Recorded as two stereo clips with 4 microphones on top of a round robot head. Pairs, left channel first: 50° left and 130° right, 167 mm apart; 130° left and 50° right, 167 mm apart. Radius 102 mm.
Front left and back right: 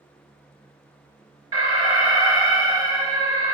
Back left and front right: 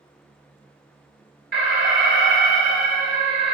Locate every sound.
1.5 s an alarm: 65° right, 4.5 m